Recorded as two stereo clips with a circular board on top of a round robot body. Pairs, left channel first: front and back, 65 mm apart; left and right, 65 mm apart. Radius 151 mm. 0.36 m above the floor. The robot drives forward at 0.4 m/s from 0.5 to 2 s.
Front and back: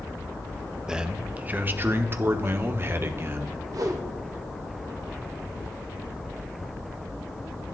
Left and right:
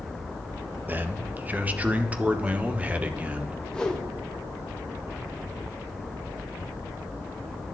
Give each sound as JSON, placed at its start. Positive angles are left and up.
{"t": 0.9, "sound": "a man speaking", "azimuth_deg": -110, "distance_m": 0.8}
{"t": 3.7, "sound": "a whoosh", "azimuth_deg": 170, "distance_m": 1.3}